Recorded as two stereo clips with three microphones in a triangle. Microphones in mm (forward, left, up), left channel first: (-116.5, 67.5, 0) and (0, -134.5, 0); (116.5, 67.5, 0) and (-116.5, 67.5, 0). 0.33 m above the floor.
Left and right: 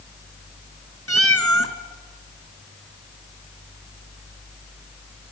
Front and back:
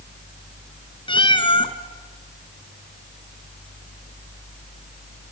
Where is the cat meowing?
70° right, 1.2 m.